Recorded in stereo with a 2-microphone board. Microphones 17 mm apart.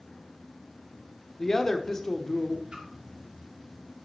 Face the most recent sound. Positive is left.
turn(degrees=-45)  # may be behind; listen again after turning